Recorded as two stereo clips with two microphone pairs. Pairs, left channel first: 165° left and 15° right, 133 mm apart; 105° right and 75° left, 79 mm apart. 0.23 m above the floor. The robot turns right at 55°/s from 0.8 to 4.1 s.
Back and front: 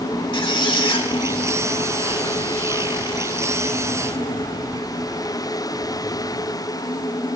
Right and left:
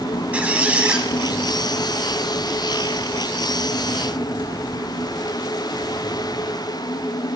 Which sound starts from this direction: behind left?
A squeak, at 0.3 s.